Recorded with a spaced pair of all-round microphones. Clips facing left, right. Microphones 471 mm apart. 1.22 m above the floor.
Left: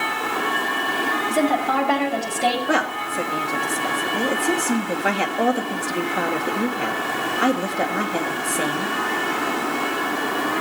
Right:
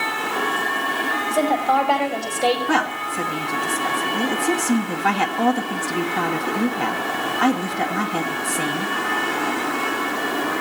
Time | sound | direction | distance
1.3 | a woman speaking | 35° left (ahead or behind) | 5.5 m
2.7 | a woman speaking | 15° right (ahead or behind) | 2 m